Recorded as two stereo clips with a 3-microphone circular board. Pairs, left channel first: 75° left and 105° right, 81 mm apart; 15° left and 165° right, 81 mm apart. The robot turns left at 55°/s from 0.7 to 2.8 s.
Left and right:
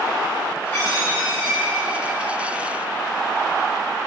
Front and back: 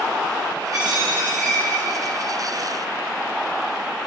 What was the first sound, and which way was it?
A dropped coin, 135° left.